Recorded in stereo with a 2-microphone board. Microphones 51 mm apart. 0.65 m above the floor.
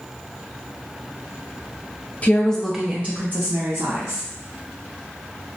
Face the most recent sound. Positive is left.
turn(degrees=-60)  # may be behind; listen again after turning